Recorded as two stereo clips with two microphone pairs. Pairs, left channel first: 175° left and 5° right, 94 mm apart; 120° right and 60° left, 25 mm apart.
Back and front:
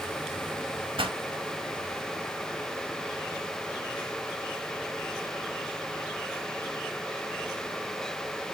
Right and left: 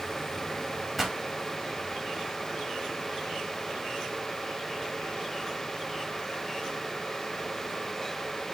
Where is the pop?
25° right, 1.5 m.